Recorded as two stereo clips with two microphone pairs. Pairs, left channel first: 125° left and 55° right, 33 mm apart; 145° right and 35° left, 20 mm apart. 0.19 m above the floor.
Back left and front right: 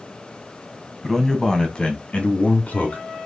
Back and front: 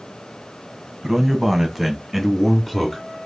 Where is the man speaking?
55° left, 1.0 m; by 3.0 s 130° left, 1.6 m.